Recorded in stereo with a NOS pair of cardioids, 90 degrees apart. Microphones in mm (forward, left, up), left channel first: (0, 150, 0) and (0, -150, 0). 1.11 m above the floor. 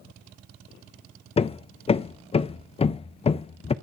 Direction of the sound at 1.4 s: 20° left.